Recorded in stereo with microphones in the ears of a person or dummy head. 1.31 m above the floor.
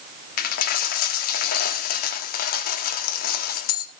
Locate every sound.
0.4 s a dropped coin: 50° left (ahead or behind), 1.2 m